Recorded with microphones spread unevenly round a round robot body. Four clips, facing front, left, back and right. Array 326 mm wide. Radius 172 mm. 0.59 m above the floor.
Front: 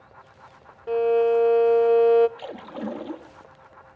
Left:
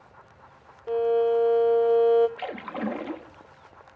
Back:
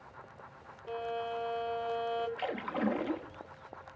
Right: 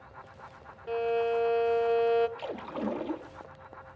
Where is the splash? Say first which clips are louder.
Left 3 dB, even; 85° left, 1.2 m.